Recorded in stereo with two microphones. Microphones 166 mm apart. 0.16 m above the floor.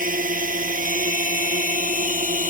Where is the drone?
55° right (ahead or behind); by 2.5 s 50° right (ahead or behind).